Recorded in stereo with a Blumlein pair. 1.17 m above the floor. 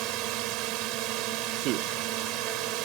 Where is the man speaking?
40° right.